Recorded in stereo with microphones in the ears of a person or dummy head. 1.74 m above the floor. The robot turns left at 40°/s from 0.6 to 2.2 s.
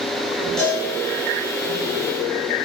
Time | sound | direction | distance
0.6 | a cowbell | 10° left (ahead or behind) | 5 m